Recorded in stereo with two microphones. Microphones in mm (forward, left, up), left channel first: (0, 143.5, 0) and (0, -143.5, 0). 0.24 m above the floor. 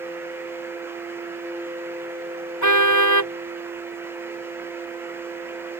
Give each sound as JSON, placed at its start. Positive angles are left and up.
{"t": 2.6, "sound": "a car horn", "side_deg": 85}